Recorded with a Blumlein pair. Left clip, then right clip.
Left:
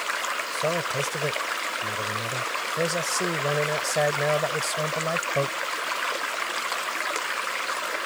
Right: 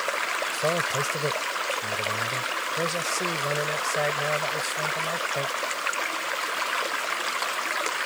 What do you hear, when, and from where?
0.5 s a man speaking: straight ahead; by 5.6 s 25° left